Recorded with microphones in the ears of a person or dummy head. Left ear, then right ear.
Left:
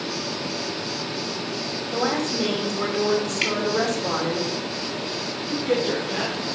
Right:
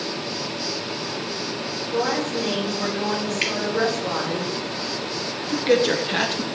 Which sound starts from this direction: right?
A man speaking, at 5.5 s.